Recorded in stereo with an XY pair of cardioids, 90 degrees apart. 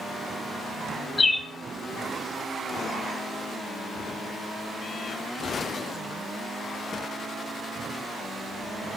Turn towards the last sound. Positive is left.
turn(degrees=30)